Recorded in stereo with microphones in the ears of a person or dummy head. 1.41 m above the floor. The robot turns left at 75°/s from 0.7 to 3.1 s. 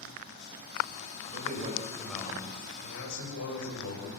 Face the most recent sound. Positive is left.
turn(degrees=100)